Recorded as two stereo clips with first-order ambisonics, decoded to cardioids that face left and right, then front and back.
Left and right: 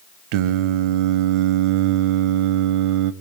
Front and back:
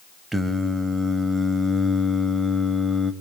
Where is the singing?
95° right, 0.7 m.